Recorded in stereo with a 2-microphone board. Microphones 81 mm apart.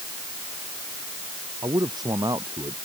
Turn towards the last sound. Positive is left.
turn(degrees=-55)  # may be behind; listen again after turning